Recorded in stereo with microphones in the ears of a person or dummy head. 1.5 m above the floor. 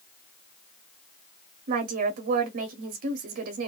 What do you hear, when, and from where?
1.7 s a woman speaking: 45° right (ahead or behind), 0.5 m